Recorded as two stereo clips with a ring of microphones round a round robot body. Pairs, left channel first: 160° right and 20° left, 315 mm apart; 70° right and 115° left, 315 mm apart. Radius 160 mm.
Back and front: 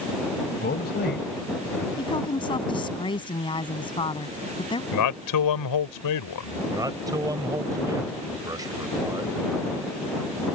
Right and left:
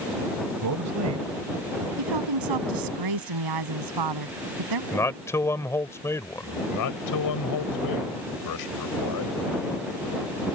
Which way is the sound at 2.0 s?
125° left.